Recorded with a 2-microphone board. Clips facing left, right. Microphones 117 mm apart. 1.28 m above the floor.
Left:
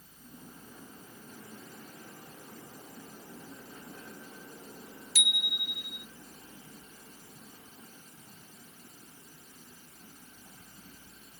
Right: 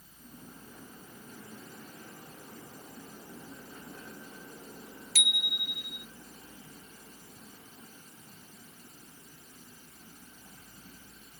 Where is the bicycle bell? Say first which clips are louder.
Even; 70° right (ahead or behind).